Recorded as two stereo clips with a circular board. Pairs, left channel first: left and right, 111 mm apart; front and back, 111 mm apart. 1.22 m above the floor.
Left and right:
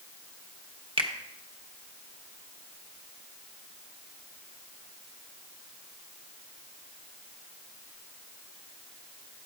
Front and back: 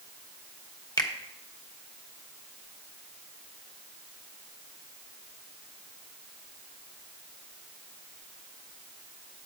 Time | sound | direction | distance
1.0 | a finger snap | 55° right | 0.9 m